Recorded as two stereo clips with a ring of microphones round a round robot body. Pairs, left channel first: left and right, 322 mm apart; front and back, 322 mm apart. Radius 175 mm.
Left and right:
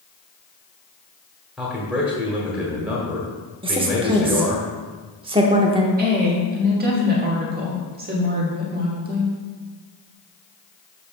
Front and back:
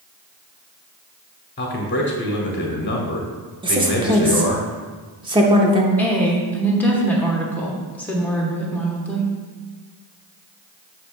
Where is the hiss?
I don't hear a hiss.